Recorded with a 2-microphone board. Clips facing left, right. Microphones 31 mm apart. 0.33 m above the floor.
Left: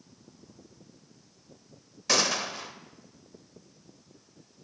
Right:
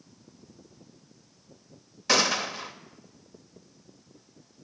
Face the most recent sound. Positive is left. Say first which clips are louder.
# right 3 dB
turn(degrees=-15)  # may be behind; listen again after turning